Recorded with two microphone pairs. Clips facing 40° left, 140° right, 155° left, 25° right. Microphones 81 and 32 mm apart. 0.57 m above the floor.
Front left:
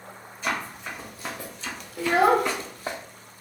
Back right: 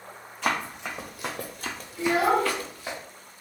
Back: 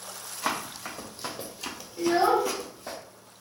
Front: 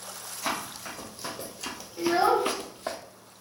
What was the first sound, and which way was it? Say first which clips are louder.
Running footsteps: back right 2 dB, back 1 dB; 150° right.